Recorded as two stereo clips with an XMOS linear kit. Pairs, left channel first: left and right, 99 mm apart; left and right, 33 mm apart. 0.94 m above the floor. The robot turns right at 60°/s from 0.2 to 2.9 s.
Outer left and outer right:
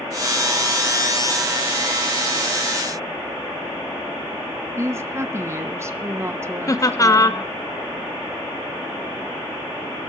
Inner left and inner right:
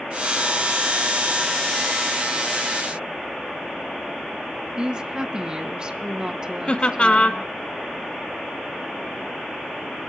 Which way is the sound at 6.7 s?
30° left (ahead or behind).